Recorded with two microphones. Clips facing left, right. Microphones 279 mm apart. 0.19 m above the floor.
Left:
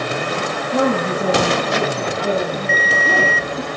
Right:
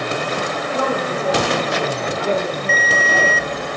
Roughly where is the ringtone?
Right.